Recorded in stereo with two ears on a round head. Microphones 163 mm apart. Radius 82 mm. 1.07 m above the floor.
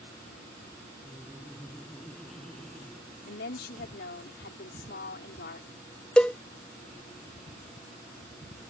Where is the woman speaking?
60° left (ahead or behind).